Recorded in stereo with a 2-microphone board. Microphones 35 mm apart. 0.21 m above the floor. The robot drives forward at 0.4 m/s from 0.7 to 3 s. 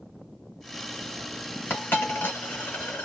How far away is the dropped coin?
About 1.4 m.